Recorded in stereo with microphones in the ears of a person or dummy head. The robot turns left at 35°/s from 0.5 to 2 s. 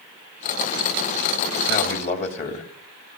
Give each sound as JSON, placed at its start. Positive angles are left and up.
{"t": 1.7, "sound": "a man speaking", "side_deg": 50, "distance_m": 2.5}